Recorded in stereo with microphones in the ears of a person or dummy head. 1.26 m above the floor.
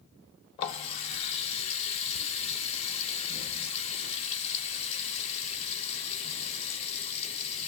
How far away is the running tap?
About 0.5 m.